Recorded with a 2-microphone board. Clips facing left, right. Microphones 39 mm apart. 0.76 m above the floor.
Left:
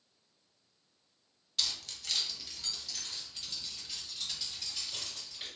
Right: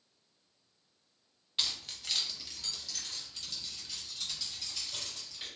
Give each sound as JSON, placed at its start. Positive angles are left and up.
{"t": 1.6, "sound": "keys jangling", "side_deg": -30, "distance_m": 0.6}